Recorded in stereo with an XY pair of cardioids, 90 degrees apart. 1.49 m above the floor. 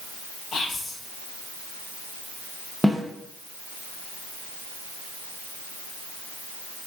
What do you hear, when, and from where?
0.5 s whispering: 65° left, 1.9 m
2.8 s a snare drum: 5° left, 1.2 m